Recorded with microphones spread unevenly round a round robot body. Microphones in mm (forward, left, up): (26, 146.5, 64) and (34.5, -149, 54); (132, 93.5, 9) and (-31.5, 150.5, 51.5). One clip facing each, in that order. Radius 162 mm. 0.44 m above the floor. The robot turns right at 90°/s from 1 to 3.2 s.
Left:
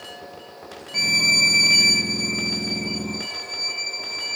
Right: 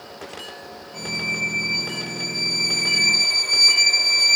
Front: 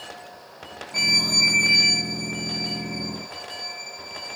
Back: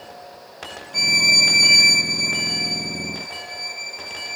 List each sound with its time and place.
0.9 s a violin: 50° left, 0.6 m; by 4.4 s 110° right, 0.6 m